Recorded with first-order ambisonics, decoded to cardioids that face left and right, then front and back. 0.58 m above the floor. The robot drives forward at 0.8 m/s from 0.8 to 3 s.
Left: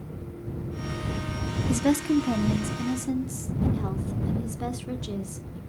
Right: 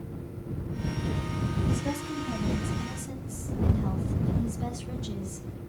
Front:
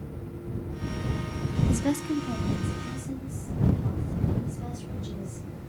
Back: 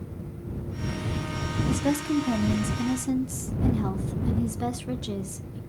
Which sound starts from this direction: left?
A woman speaking, at 1.7 s.